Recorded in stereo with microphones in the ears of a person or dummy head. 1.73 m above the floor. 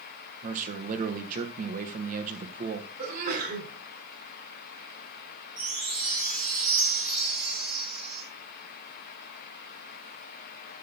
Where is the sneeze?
55° right (ahead or behind), 5 m.